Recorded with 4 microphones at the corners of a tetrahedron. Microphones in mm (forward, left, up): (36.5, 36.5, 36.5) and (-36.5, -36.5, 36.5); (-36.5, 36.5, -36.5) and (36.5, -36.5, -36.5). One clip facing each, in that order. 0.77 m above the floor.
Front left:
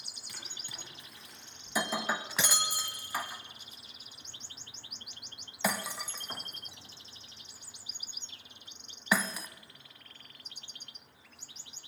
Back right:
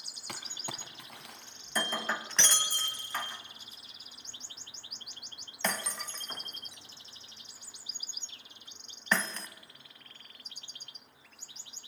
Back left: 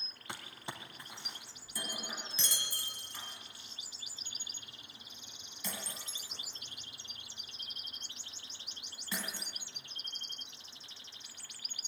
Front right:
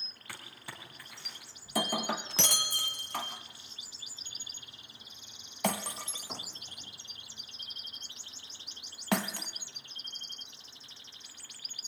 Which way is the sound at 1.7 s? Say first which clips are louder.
Front left 1 dB, front right 13 dB; 35° right.